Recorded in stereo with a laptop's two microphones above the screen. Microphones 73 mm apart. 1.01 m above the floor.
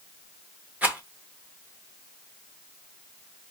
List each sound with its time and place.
0.8 s a rattle: 20° right (ahead or behind), 0.9 m